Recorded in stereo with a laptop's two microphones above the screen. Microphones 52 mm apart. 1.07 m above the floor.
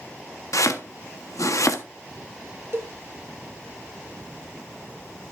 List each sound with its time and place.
0.5 s chopping: 80° left, 1.0 m
2.7 s a cowbell: 45° right (ahead or behind), 1.4 m